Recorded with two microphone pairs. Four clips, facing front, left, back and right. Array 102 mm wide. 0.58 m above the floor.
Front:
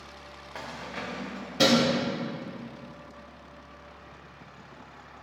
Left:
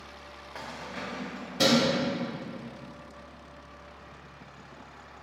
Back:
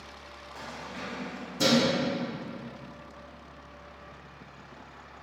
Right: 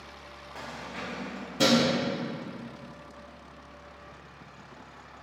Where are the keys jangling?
30° left, 1.7 m; by 1.9 s 15° left, 2.5 m.